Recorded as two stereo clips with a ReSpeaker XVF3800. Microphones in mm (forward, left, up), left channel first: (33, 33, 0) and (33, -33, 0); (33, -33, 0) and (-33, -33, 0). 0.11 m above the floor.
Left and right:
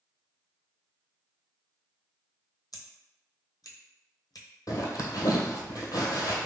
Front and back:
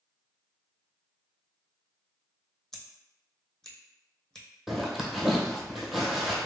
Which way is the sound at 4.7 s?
95° left.